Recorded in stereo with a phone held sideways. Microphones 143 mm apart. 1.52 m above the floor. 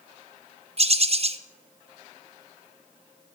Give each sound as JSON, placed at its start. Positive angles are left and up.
{"t": 0.8, "sound": "a bird", "side_deg": -45, "distance_m": 0.5}